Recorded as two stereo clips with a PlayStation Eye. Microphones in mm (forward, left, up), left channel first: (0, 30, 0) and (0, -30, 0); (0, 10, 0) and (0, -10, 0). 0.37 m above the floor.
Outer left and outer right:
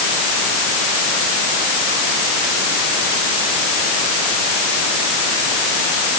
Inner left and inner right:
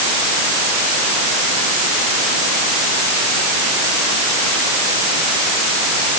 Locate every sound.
Only background noise.